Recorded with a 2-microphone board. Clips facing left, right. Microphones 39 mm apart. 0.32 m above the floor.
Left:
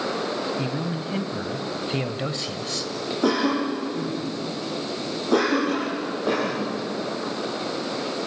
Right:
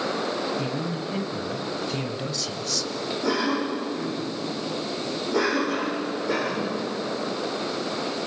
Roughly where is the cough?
Left.